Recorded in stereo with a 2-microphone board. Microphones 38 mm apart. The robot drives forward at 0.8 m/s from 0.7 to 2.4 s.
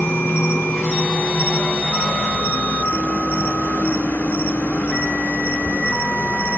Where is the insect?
85° left, 2.5 m; by 6.6 s 60° left (ahead or behind), 2.5 m.